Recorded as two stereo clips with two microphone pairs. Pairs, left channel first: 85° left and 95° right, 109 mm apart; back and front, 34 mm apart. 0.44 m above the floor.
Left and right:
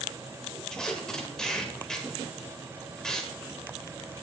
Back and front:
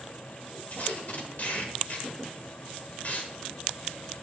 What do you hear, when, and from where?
0.7 s tape being pulled: 170° left, 1.5 m